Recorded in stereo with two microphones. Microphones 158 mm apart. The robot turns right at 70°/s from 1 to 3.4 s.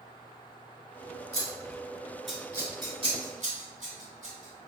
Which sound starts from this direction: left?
Scissors, at 1.3 s.